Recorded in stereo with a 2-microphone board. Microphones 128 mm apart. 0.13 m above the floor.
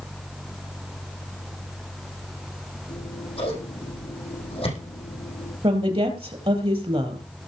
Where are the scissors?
45° left (ahead or behind), 7 m.